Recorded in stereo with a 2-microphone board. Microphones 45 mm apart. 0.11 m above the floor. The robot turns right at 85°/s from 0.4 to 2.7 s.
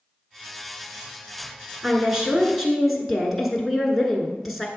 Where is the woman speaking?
20° right (ahead or behind), 1.1 m; by 4.7 s 5° right (ahead or behind), 1.1 m.